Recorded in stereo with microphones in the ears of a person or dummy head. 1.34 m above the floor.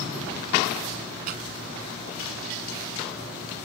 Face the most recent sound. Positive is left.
turn(degrees=-55)  # may be behind; listen again after turning